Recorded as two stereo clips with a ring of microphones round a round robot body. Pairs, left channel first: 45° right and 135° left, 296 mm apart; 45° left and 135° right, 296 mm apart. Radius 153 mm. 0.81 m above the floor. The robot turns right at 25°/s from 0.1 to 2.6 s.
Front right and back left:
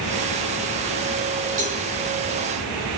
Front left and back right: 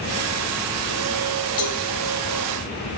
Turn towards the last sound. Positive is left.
turn(degrees=95)